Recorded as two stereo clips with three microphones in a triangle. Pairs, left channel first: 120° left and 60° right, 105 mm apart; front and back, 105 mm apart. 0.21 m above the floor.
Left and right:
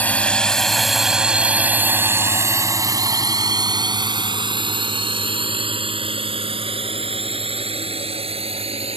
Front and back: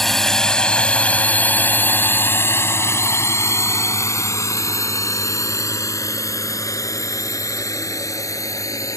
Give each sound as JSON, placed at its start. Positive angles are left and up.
{"t": 0.0, "sound": "a drone", "azimuth_deg": 80}